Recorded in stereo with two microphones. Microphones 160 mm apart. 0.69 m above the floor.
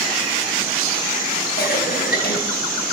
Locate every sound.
1.6 s a cough: 75° left (ahead or behind), 4 m